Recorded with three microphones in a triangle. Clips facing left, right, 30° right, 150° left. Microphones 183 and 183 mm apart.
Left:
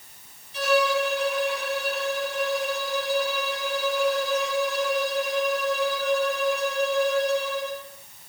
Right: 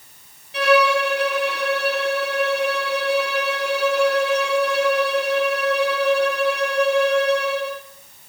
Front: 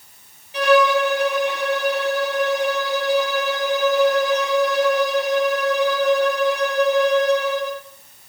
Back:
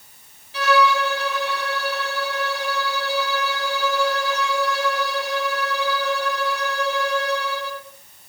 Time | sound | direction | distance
0.5 | a violin | 100° right | 2.5 m